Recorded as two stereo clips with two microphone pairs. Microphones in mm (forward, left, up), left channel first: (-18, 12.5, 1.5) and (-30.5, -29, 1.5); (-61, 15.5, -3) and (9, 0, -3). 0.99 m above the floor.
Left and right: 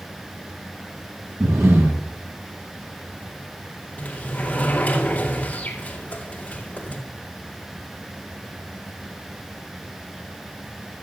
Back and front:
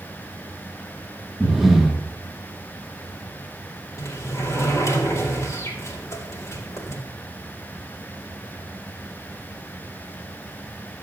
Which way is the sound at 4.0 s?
125° left.